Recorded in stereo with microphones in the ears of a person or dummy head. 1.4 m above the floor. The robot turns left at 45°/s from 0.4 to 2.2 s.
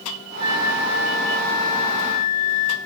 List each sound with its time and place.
0.4 s a flute: 145° right, 0.9 m; by 2.8 s 135° left, 0.9 m